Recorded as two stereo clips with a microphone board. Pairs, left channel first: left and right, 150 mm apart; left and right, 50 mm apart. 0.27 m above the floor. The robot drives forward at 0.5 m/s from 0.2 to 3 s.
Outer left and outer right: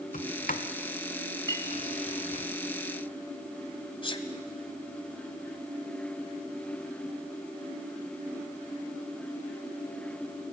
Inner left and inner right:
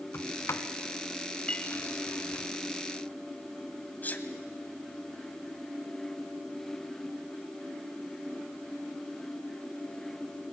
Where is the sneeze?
35° left (ahead or behind), 1.6 m.